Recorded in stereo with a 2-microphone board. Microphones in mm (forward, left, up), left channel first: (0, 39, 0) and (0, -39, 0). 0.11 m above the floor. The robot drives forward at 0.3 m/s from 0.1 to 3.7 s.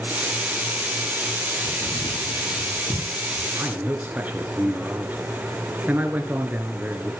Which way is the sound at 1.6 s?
75° left (ahead or behind).